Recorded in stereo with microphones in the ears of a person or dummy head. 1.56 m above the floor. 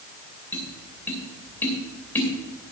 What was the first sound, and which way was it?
Tapping, 10° left (ahead or behind).